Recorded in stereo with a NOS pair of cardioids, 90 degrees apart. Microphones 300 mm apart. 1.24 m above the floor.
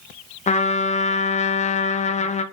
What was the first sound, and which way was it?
A trumpet, 25° left.